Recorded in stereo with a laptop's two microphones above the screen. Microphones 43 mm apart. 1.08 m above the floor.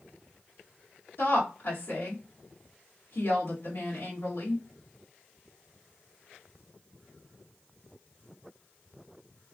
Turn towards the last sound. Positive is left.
turn(degrees=65)  # may be behind; listen again after turning